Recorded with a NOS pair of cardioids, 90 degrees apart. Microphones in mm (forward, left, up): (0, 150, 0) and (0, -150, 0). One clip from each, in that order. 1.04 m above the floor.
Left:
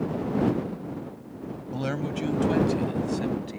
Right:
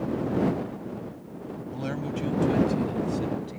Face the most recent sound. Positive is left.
turn(degrees=35)